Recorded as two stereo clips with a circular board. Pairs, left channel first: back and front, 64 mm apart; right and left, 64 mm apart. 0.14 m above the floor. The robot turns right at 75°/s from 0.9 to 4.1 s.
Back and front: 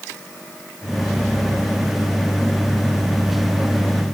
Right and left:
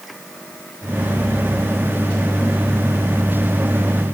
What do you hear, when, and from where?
Only background noise.